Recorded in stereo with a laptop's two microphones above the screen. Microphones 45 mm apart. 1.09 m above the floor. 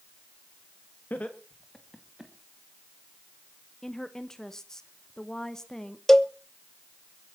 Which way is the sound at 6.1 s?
10° left (ahead or behind).